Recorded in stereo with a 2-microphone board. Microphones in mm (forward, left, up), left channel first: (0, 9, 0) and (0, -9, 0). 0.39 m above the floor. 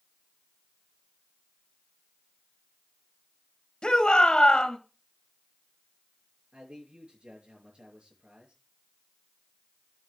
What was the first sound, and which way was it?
A shout, 60° left (ahead or behind).